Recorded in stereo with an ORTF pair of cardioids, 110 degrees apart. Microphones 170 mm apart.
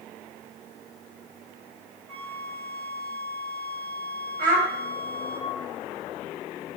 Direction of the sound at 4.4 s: 60° right.